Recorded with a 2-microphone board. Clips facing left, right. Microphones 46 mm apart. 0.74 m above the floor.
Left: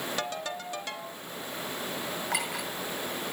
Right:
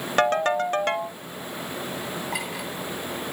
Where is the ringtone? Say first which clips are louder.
Right 13 dB; 50° right (ahead or behind), 1.0 m.